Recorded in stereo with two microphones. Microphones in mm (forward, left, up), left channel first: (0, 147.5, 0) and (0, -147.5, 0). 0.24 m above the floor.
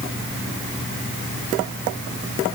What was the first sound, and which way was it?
Only background noise.